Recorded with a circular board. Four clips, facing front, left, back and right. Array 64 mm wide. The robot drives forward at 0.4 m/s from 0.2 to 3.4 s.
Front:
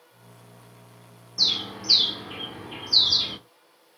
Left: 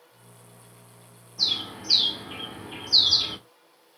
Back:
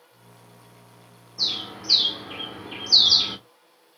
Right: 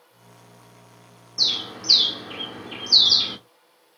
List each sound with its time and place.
1.4 s a bird: 55° right, 1.2 m; by 3.4 s 135° right, 1.2 m